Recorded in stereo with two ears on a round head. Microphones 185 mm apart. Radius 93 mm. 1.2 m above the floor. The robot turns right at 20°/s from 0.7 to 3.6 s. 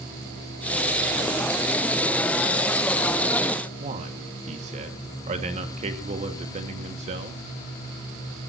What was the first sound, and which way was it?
A man speaking, 35° right (ahead or behind).